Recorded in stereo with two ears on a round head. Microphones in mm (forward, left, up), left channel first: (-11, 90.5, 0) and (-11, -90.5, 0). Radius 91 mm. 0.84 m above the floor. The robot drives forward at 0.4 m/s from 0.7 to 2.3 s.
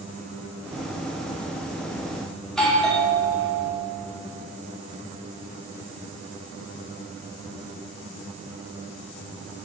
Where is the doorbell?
5° left (ahead or behind), 2.5 m.